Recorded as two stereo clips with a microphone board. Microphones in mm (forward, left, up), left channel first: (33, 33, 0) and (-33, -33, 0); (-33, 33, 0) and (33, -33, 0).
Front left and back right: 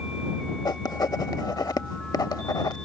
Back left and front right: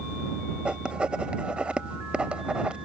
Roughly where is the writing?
Ahead left.